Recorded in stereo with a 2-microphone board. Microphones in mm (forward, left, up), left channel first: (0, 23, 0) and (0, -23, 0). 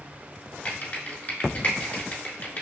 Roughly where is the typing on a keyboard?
Left.